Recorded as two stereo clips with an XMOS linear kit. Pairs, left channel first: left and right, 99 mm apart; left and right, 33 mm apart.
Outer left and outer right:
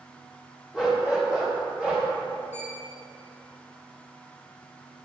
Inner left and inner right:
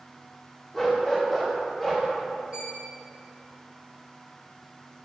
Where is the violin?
20° right (ahead or behind), 1.2 m.